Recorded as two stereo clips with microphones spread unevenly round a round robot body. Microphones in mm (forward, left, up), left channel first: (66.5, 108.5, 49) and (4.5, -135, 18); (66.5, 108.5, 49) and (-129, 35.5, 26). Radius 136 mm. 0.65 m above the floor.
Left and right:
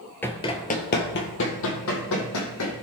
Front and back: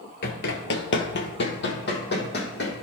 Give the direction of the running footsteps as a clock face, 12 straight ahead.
12 o'clock.